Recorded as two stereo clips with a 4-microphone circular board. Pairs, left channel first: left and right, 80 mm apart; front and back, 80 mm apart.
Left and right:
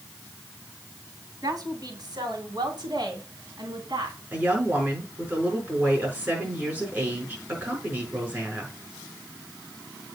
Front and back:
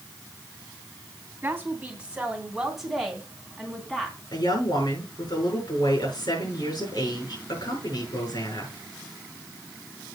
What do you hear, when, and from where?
1.4 s a woman speaking: 115° right, 2.5 m; by 4.2 s 80° right, 3.5 m
4.3 s a woman speaking: 20° right, 5.5 m